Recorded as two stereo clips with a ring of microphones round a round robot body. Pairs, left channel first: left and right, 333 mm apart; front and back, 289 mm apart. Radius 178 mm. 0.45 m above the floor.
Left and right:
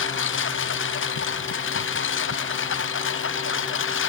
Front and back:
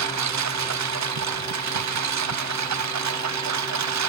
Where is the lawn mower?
150° left.